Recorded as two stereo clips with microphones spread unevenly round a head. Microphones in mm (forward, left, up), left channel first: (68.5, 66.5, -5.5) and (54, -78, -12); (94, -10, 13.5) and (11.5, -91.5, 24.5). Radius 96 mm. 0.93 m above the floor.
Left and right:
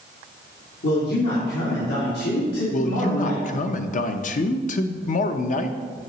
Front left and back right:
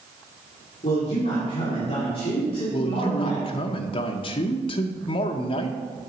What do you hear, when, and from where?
0.8 s a man speaking: 85° left, 1.9 m
2.7 s a man speaking: 65° left, 0.6 m